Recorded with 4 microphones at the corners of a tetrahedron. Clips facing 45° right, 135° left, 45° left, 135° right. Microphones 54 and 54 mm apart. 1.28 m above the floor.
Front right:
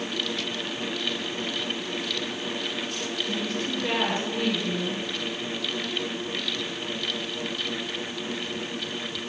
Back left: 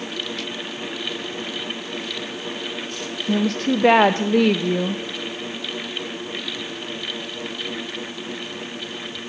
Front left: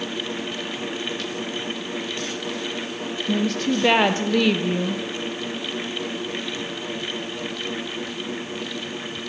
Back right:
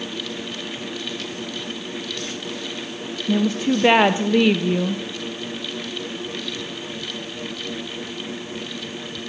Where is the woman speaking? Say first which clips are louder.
Back left 12 dB, back right 3 dB; 150° left, 0.5 m.